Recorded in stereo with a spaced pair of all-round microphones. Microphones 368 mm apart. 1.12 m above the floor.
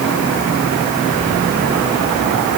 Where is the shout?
No shout in this recording.